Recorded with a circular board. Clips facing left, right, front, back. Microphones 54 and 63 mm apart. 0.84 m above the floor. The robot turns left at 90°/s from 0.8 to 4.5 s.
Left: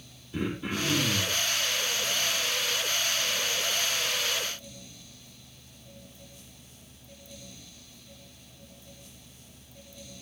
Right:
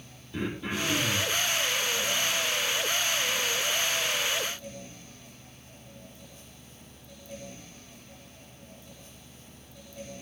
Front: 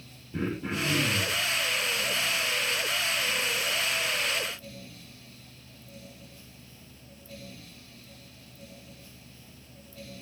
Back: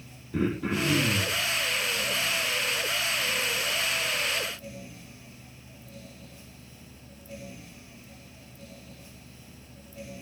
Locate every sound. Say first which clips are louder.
0.3 s throat clearing: left 1 dB, back 4 dB; 170° left, 5 m; by 1.4 s 115° left, 5 m